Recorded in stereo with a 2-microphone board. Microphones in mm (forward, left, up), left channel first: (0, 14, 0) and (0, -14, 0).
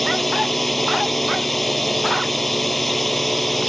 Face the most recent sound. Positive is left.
turn(degrees=5)  # may be behind; listen again after turning